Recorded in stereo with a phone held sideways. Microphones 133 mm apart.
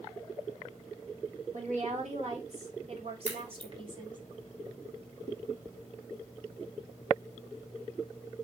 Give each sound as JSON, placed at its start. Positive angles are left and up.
{"t": 1.5, "sound": "a woman speaking", "side_deg": -65, "distance_m": 3.0}
{"t": 3.2, "sound": "a crack", "side_deg": -65, "distance_m": 2.5}